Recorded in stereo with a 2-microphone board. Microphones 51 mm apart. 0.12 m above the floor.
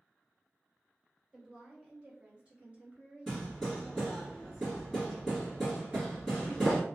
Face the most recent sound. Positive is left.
turn(degrees=-55)  # may be behind; listen again after turning